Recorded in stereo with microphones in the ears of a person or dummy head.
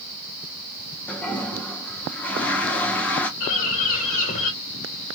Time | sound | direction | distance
1.1 | a toilet flushing | 10° left (ahead or behind) | 1.0 m
3.4 | a bird | 50° left (ahead or behind) | 2.0 m